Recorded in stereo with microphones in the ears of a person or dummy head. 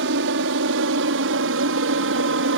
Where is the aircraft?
60° right (ahead or behind).